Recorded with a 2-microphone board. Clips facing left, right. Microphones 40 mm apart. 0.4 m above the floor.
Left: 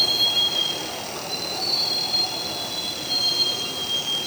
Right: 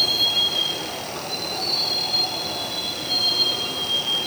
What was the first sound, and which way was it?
A vehicle, centre (ahead or behind).